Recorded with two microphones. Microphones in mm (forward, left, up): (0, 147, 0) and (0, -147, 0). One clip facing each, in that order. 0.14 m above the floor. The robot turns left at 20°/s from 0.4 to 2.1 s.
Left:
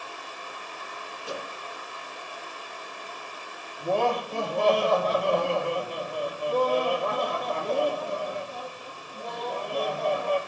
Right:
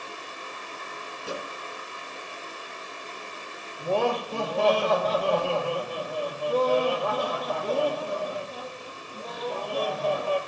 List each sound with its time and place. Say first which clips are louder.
1.2 s a microwave: right 1 dB; 35° right (ahead or behind), 2.5 m; by 1.5 s 40° right (ahead or behind), 2.5 m
3.8 s laughter: even; 10° right (ahead or behind), 4 m